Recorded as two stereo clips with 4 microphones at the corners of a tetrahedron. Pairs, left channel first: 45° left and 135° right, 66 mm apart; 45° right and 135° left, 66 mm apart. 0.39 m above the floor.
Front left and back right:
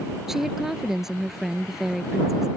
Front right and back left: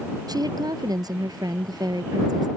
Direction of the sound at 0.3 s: 140° left.